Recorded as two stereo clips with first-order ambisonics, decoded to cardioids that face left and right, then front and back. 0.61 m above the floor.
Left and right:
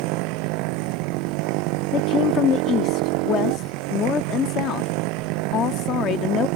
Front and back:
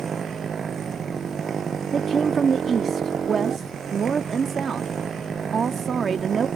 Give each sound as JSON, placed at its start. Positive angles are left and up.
{"t": 0.0, "sound": "a motorcycle", "azimuth_deg": -110}
{"t": 1.9, "sound": "a woman speaking", "azimuth_deg": 125}